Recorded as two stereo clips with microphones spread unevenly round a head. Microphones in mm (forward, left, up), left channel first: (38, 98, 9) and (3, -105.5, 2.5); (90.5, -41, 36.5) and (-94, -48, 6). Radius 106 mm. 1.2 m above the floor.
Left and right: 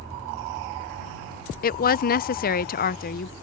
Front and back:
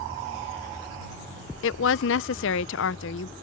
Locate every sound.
1.6 s a woman speaking: 30° left